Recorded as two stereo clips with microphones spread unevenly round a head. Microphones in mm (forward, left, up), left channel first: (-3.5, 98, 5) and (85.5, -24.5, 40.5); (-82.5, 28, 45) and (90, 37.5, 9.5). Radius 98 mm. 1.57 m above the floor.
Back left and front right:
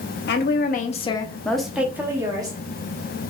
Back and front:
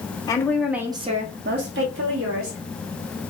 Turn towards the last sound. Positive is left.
turn(degrees=5)